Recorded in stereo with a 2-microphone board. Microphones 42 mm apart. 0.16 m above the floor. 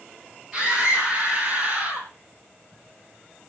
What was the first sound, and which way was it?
A scream, 5° right (ahead or behind).